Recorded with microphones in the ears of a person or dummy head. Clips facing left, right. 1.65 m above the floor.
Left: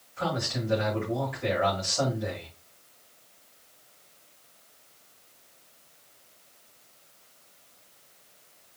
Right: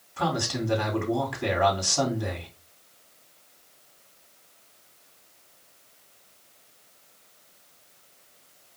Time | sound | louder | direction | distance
0.2 | a man speaking | right 3 dB | 75° right (ahead or behind) | 4 m